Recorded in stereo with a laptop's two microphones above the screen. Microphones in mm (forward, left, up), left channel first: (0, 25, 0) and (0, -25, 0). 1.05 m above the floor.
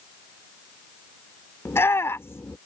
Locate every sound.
1.6 s a shout: 60° left (ahead or behind)